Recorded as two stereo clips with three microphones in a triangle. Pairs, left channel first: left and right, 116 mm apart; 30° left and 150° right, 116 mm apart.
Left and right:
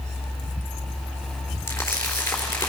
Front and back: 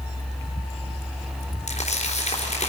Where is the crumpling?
25° left, 3.5 m.